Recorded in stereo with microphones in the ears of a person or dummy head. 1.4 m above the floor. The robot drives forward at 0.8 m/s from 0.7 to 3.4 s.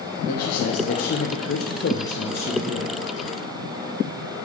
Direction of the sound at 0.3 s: 55° left (ahead or behind).